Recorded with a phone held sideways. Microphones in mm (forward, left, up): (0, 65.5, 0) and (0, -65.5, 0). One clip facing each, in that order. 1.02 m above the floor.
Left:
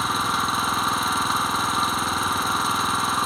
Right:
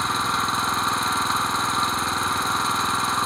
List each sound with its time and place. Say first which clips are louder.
0.0 s an engine running: even; 5° left (ahead or behind), 1.0 m